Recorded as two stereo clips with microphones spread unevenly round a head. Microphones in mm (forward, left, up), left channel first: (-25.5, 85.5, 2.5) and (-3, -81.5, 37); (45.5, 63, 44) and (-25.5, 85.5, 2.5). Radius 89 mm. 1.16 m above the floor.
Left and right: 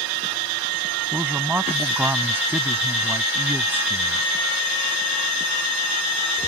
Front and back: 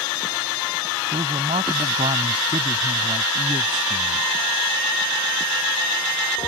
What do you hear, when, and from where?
1.1 s a man speaking: 160° right